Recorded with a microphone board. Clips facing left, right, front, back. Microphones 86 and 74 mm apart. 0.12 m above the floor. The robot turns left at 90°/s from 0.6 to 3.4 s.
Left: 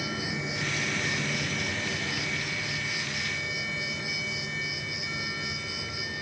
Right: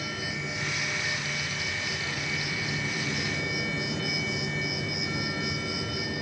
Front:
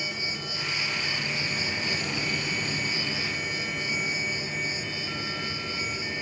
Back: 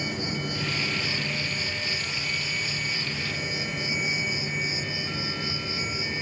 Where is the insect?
155° left, 2.5 m; by 6.2 s 100° right, 2.5 m.